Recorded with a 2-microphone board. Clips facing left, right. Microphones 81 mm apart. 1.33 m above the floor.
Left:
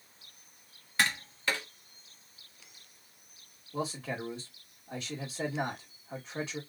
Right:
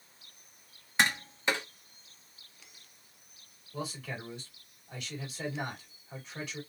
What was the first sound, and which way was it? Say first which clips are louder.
Tapping: right 2 dB; 20° right (ahead or behind).